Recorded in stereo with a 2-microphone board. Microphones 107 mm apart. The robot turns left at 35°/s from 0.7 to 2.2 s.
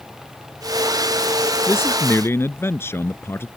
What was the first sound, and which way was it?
A man speaking, 20° left (ahead or behind).